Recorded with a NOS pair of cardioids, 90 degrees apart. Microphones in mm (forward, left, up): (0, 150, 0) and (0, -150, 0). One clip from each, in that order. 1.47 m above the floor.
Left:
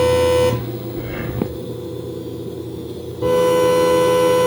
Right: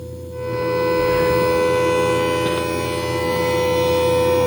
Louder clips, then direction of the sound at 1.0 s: Right 10 dB; 45° left.